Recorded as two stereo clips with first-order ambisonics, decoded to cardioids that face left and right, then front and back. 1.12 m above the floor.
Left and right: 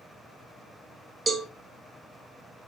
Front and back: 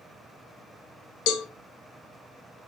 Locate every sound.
1.3 s a cowbell: 15° right, 0.6 m